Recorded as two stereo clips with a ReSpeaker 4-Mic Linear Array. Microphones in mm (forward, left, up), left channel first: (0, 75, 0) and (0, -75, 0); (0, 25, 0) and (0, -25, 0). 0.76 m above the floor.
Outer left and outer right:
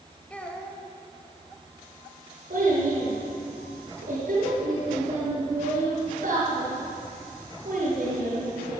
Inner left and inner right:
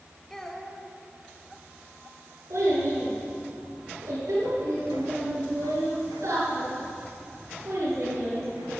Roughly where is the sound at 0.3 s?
Centre.